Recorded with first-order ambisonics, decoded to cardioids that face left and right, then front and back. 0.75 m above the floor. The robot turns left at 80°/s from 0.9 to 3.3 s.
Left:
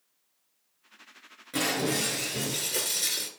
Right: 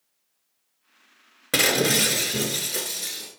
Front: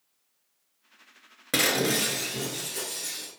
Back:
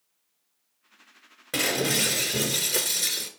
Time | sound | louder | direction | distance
1.5 | breaking glass | right 8 dB, front 1 dB | 65° right | 1.5 m